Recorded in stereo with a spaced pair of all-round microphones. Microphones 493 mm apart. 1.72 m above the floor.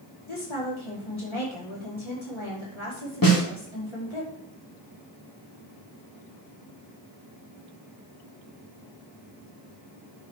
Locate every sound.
0.3 s a woman speaking: 65° left (ahead or behind), 5 m
3.2 s a snare drum: 40° left (ahead or behind), 3 m